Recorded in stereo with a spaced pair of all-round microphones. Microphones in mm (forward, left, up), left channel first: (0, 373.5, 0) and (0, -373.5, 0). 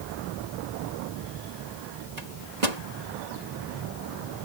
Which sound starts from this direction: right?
A microwave, at 2.2 s.